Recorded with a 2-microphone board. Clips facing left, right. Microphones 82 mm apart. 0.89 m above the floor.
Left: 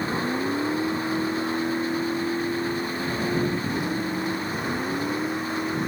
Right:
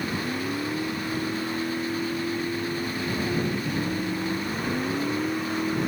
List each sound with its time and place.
0.0 s a vehicle: 30° left (ahead or behind); by 5.9 s 5° left (ahead or behind)